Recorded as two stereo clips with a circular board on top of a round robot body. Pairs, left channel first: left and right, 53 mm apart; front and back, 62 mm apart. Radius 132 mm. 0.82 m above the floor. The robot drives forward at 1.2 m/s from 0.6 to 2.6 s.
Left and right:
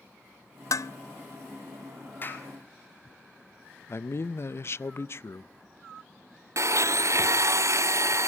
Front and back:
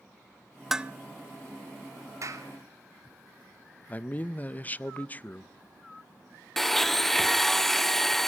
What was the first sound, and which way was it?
Dishes clattering, 90° left.